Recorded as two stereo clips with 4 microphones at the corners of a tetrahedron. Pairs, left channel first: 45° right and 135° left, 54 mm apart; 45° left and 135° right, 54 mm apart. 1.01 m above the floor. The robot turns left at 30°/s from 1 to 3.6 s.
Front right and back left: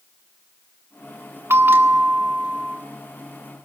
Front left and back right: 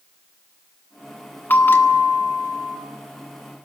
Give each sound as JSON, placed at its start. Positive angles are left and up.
{"t": 1.5, "sound": "a bell", "azimuth_deg": 95, "distance_m": 1.6}